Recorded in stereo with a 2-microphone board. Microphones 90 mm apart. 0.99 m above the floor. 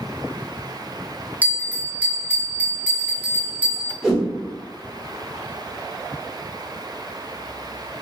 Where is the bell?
20° right (ahead or behind), 1.0 m.